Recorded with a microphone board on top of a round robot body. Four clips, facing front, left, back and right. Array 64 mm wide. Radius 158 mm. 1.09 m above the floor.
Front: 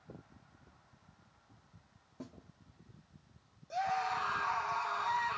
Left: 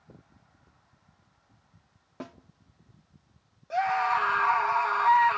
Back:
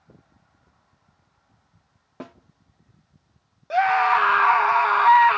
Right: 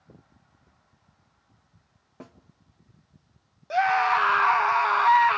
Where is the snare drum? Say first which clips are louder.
Left 5 dB, back 10 dB; 165° left, 0.9 m.